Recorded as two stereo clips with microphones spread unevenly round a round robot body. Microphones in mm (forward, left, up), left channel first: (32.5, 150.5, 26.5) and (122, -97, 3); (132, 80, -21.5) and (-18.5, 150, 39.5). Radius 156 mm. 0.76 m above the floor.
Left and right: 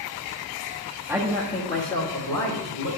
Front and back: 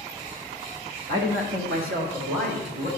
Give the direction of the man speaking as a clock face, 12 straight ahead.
5 o'clock.